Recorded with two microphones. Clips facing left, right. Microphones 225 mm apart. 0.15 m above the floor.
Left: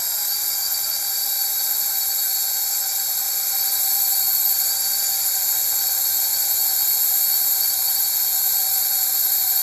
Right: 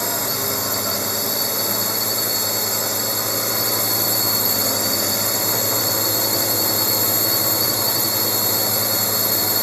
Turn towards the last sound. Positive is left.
turn(degrees=-75)  # may be behind; listen again after turning